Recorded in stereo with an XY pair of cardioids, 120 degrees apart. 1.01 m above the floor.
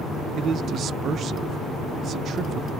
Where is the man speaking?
50° right, 0.5 m.